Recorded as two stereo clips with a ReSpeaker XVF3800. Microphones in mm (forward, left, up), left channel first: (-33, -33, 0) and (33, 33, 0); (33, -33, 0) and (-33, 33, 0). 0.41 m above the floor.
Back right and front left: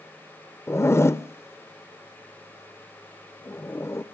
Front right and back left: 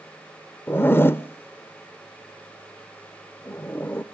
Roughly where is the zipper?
Right.